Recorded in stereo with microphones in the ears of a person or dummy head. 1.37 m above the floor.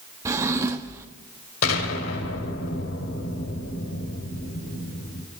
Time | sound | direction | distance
0.2 | a drawer | 15° right (ahead or behind) | 1.1 m
1.6 | an explosion | 80° left | 3 m